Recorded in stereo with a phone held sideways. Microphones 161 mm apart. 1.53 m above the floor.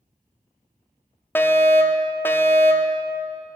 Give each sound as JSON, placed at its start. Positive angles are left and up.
{"t": 1.4, "sound": "a fire alarm", "side_deg": 10, "distance_m": 0.7}